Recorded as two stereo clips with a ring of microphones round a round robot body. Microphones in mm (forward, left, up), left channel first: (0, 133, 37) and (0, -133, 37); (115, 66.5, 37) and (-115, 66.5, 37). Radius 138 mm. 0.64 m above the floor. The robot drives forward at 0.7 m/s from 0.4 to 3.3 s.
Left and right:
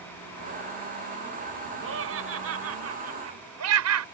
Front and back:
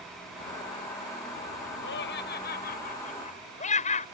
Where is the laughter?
50° right; by 4.0 s 65° right.